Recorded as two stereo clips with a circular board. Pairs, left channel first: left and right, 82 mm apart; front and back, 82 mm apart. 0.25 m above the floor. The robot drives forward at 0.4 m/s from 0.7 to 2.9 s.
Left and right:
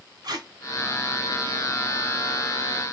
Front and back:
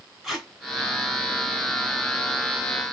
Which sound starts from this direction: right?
Tape being pulled, at 0.2 s.